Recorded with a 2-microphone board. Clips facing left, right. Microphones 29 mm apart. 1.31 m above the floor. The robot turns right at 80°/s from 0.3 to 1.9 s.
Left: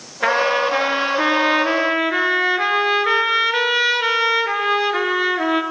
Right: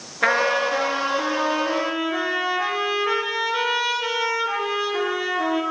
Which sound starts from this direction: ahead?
A trumpet, at 0.2 s.